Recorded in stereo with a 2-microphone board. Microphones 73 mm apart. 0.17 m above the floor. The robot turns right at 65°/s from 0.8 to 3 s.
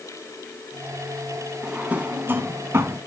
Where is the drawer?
10° right (ahead or behind), 0.8 m; by 3.0 s 35° right (ahead or behind), 0.8 m.